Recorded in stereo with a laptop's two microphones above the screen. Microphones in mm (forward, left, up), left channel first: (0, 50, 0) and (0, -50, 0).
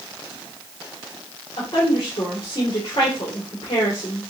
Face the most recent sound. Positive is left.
turn(degrees=60)  # may be behind; listen again after turning